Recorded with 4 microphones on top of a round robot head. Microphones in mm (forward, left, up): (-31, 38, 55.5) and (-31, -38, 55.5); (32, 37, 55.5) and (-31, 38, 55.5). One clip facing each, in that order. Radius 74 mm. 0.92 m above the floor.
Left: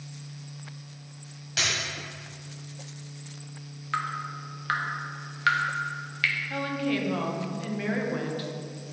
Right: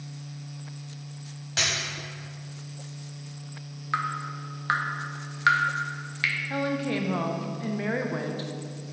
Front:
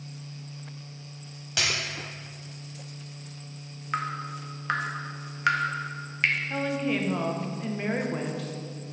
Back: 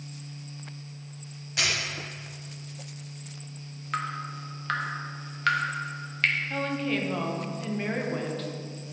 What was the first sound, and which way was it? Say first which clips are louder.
A dropped coin: even, even; 25° right.